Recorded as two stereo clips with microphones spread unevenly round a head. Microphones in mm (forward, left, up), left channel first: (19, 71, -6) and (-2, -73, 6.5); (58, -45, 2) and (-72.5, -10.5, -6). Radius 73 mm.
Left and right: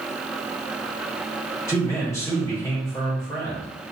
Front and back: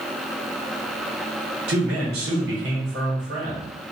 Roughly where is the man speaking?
Behind left.